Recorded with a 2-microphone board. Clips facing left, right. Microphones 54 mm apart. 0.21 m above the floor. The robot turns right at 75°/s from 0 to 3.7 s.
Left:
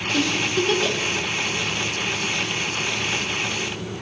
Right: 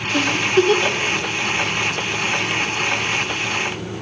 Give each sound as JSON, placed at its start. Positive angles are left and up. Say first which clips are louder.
{"t": 0.1, "sound": "a giggle", "louder": "right 6 dB", "side_deg": -35, "distance_m": 1.3}